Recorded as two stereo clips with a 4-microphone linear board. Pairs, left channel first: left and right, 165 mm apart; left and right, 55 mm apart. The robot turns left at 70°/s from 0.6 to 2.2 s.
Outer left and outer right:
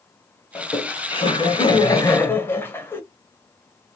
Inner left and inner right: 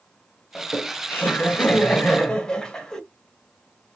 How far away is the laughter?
About 1.1 m.